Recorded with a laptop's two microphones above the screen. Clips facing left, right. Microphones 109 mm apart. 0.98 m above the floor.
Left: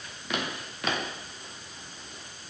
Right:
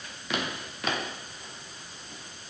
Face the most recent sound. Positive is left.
No sound to turn to.